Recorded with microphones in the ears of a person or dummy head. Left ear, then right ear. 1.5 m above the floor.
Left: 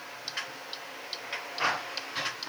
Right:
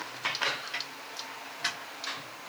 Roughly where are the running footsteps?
No running footsteps in this recording.